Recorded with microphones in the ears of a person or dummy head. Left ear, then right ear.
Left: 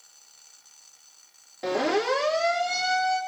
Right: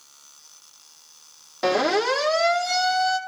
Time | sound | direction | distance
1.6 | a siren | 30° right (ahead or behind) | 4 m